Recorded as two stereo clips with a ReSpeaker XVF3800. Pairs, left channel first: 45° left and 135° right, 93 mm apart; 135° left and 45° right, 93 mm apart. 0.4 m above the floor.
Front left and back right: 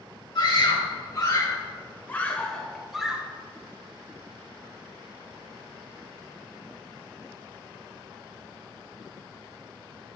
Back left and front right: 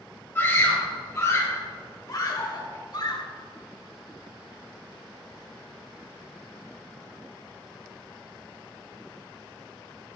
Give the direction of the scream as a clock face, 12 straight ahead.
10 o'clock.